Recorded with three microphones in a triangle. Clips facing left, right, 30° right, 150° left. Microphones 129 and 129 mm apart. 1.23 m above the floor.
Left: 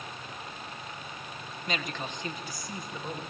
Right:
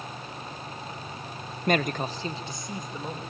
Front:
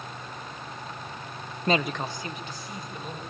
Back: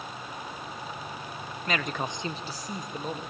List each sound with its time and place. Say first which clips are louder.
1.7 s a man speaking: right 10 dB, front 5 dB; 75° right, 0.5 m; by 3.2 s 165° right, 2 m